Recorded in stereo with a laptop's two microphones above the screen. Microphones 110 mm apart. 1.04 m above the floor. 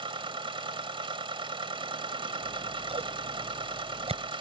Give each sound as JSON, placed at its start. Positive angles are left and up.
{"t": 0.0, "sound": "a machine running", "side_deg": -50}
{"t": 2.4, "sound": "scissors", "side_deg": -65}